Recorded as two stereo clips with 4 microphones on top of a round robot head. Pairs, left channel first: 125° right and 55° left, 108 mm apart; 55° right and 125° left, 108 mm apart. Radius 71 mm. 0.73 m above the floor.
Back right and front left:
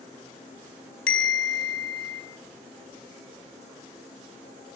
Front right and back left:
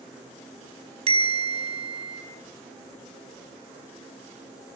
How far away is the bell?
About 5.5 m.